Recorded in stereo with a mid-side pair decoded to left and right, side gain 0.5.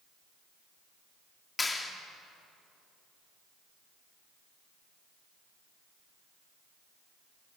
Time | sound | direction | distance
1.6 | a clap | 20° left | 3 m